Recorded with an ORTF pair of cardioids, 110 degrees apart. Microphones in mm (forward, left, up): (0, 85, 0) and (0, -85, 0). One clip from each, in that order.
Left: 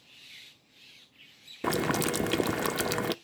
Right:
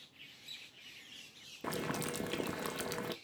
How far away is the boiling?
About 0.7 m.